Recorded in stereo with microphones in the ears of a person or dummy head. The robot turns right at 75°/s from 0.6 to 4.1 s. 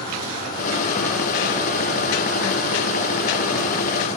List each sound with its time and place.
0.0 s an insect: 135° left, 3.5 m; by 4.2 s 40° left, 3.5 m